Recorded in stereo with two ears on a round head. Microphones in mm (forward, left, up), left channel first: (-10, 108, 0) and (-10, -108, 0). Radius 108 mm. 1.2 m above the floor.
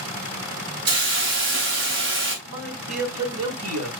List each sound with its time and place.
0.9 s a hiss: 50° right (ahead or behind), 4 m
2.5 s a man speaking: 70° right (ahead or behind), 3 m